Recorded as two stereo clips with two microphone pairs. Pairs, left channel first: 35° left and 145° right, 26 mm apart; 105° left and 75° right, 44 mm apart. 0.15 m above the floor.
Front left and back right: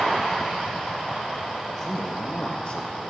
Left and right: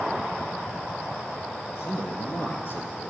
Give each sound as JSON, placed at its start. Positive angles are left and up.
{"t": 1.7, "sound": "a man speaking", "azimuth_deg": 115, "distance_m": 3.0}